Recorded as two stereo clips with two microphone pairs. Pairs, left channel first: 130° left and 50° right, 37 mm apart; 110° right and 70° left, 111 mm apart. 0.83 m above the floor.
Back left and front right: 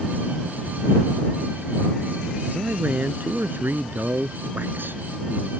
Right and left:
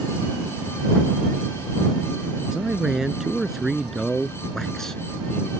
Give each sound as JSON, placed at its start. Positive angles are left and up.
{"t": 2.5, "sound": "a man speaking", "azimuth_deg": -15}